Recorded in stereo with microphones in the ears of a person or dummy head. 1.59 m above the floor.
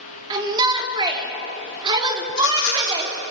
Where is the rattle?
65° left (ahead or behind), 5 m.